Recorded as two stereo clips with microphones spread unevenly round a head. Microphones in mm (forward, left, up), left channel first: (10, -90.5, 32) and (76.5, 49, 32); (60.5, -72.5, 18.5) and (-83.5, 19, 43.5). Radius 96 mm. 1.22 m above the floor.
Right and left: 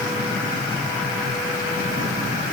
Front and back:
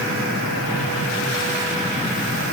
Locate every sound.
Only background noise.